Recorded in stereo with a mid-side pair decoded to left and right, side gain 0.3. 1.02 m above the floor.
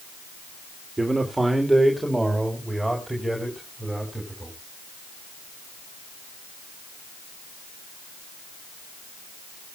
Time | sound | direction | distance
1.0 | a man speaking | 25° right | 2.5 m